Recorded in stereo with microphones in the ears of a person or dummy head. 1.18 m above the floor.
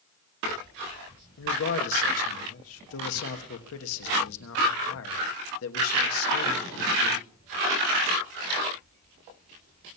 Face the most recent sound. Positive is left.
turn(degrees=75)  # may be behind; listen again after turning